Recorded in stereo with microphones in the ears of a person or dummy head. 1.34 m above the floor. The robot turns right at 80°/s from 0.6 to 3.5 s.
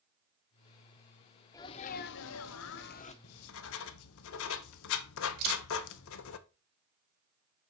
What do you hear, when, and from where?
1.5 s a sneeze: 15° left, 0.7 m; by 3.1 s 145° left, 0.7 m
3.2 s writing: 85° left, 0.6 m; by 6.4 s 75° left (ahead or behind), 0.6 m
5.4 s a camera shutter: 50° right (ahead or behind), 4 m